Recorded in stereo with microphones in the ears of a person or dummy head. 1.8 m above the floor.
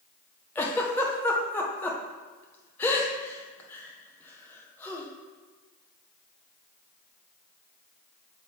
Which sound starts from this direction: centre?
A giggle, at 0.6 s.